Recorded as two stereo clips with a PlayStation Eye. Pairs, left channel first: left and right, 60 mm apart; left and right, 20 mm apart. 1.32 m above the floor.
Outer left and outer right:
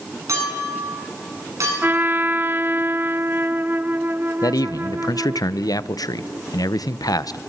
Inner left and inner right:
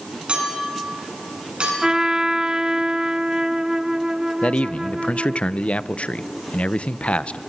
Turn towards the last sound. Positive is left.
turn(degrees=85)